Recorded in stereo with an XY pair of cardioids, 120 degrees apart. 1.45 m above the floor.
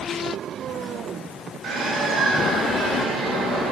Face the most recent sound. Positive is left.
turn(degrees=-55)